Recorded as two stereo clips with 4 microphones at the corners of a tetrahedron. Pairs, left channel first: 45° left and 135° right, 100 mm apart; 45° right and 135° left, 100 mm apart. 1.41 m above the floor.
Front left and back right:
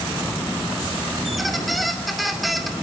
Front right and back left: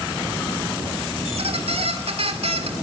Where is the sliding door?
No sliding door in this recording.